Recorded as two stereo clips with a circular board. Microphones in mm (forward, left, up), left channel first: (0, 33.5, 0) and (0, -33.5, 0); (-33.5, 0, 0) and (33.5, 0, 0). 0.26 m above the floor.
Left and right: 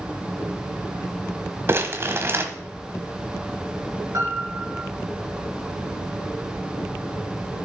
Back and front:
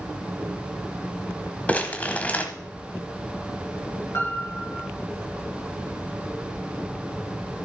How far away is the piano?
About 3.5 m.